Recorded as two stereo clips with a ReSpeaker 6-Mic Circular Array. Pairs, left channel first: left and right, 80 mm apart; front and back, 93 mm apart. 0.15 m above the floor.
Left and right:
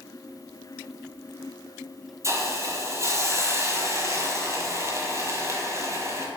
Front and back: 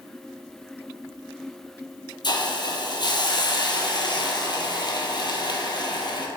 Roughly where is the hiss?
Ahead right.